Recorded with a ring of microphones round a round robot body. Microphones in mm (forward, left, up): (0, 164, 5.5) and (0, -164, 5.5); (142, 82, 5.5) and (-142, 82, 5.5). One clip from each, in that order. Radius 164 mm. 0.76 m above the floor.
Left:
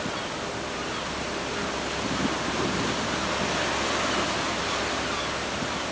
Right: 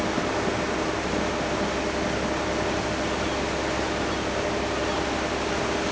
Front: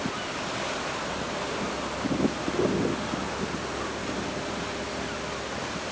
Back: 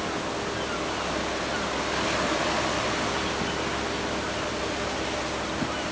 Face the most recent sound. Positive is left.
No sound to turn to.